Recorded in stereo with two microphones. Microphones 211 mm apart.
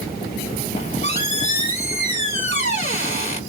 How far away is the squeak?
About 1.5 m.